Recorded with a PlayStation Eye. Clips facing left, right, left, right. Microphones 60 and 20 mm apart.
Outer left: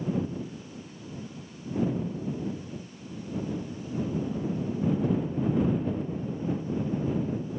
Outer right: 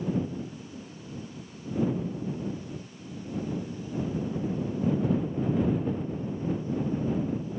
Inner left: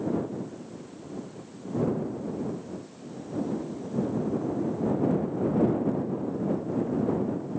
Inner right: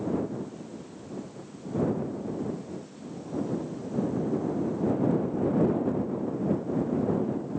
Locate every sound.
Only background noise.